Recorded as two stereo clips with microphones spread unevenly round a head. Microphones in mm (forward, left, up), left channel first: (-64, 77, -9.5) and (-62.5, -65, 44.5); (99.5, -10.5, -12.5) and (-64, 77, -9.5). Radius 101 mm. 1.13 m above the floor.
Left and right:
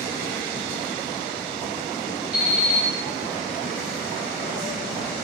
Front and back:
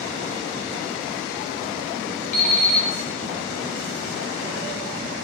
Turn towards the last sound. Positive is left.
turn(degrees=20)